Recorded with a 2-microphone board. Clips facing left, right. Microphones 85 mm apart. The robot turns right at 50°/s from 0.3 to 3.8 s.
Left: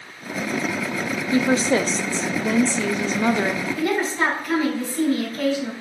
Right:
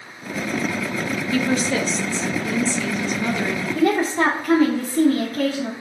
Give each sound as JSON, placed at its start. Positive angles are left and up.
{"t": 1.3, "sound": "a woman speaking", "azimuth_deg": 30, "distance_m": 0.6}
{"t": 3.8, "sound": "a woman speaking", "side_deg": -65, "distance_m": 2.0}